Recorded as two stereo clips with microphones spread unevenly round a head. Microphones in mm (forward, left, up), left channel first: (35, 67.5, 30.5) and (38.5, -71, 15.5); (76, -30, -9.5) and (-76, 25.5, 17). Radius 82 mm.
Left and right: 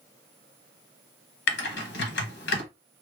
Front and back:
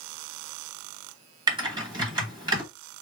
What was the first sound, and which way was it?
Typing on a keyboard, 95° left.